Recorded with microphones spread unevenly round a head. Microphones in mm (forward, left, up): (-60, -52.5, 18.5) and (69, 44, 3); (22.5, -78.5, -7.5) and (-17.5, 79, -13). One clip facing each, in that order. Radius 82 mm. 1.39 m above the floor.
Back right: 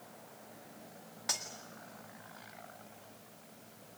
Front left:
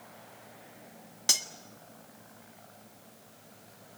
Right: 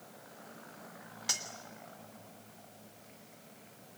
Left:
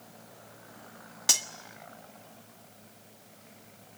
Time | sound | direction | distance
1.3 | cutlery clinking | 95° left | 1.6 m